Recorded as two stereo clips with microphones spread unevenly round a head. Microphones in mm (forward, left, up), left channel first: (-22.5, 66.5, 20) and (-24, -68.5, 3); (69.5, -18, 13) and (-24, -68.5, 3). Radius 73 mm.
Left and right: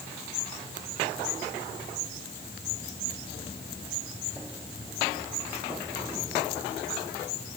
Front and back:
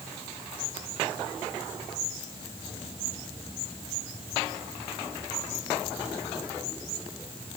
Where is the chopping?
I don't hear chopping.